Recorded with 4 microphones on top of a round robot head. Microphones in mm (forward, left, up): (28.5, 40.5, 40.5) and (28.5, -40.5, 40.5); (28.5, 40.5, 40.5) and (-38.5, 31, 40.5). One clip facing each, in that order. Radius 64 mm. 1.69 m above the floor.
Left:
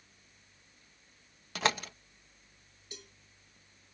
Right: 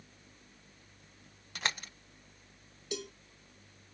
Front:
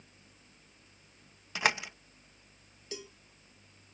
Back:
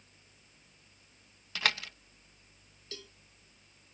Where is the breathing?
No breathing in this recording.